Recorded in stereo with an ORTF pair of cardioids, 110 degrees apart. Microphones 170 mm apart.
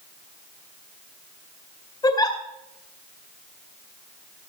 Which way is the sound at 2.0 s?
25° left.